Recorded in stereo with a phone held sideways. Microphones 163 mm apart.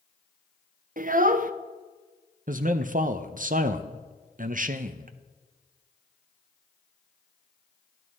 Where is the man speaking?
55° right (ahead or behind), 0.6 m.